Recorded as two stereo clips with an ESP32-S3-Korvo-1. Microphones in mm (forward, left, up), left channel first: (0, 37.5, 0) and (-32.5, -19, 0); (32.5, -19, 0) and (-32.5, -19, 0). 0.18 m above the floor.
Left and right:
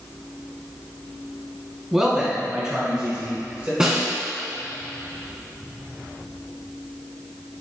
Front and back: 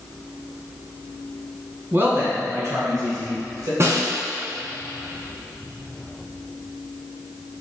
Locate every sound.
1.9 s a man speaking: 165° left, 1.2 m; by 3.7 s 170° left, 3 m
3.8 s a snare drum: 165° left, 1.2 m